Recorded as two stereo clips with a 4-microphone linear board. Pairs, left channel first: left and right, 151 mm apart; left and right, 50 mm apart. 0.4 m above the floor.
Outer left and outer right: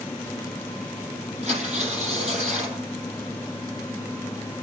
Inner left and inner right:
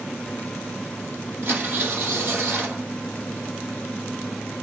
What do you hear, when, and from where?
1.4 s tearing paper: 45° right (ahead or behind), 6 m